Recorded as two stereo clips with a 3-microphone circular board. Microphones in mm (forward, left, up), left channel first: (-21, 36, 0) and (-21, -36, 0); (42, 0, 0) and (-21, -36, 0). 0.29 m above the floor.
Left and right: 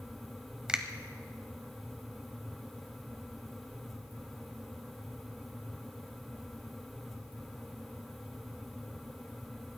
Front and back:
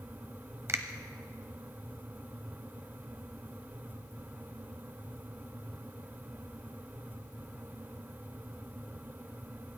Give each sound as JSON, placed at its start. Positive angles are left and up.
{"t": 0.7, "sound": "a finger snap", "azimuth_deg": -160, "distance_m": 1.0}